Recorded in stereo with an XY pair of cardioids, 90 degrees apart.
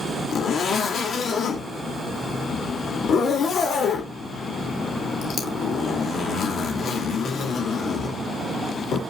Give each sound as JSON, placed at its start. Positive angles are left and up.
{"t": 0.3, "sound": "a zipper", "azimuth_deg": 65, "distance_m": 2.5}